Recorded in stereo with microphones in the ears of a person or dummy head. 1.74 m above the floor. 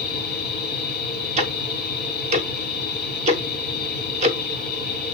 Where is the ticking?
35° right (ahead or behind), 1.0 m.